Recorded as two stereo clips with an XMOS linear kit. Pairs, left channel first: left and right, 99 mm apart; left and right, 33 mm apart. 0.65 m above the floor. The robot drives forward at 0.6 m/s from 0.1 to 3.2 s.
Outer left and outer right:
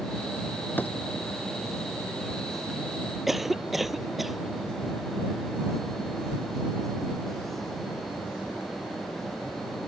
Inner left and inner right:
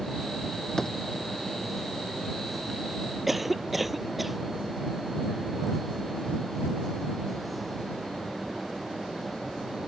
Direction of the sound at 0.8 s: 20° left (ahead or behind).